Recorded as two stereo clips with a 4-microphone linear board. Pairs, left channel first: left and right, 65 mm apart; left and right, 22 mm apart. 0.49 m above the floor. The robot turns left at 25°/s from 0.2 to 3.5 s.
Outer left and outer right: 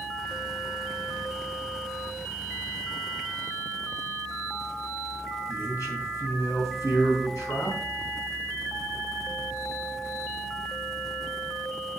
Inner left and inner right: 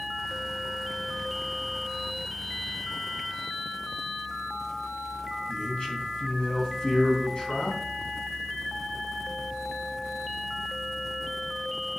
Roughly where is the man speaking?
Left.